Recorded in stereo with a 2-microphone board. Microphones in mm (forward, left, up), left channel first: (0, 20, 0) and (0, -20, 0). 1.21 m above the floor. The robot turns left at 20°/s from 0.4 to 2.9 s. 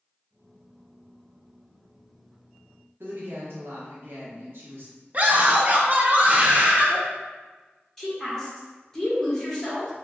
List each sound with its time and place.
3.0 s a woman speaking: 65° right (ahead or behind), 1.0 m
5.1 s a scream: 35° right (ahead or behind), 0.7 m
8.0 s a woman speaking: 10° left (ahead or behind), 1.3 m